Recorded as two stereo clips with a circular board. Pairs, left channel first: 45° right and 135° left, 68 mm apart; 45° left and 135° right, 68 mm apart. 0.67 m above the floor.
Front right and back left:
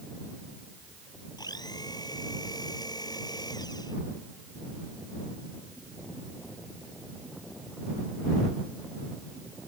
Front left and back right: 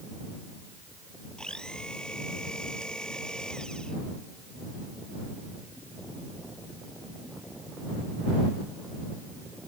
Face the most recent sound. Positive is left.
turn(degrees=-35)